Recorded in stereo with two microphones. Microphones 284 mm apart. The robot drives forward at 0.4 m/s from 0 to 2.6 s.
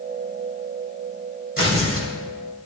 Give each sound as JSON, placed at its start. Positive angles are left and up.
{"t": 1.6, "sound": "tearing paper", "side_deg": -50, "distance_m": 2.5}